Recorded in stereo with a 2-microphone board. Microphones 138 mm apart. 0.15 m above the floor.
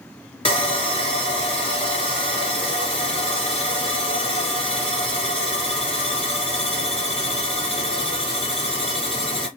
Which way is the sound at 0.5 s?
40° left (ahead or behind).